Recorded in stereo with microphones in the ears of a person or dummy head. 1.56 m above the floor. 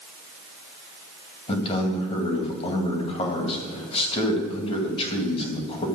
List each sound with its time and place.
1.5 s a man speaking: 35° left (ahead or behind), 2 m